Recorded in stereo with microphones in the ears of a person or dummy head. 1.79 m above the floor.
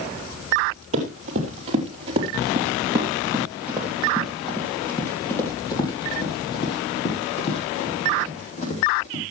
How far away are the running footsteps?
About 3 m.